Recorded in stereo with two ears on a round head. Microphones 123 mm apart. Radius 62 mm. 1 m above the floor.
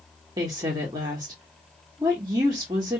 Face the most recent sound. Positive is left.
turn(degrees=-30)  # may be behind; listen again after turning